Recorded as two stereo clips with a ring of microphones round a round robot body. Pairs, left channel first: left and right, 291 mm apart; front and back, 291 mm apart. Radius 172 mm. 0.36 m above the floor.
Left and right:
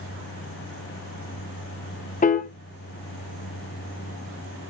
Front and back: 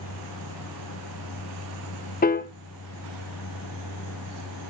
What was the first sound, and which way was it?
A piano, 40° left.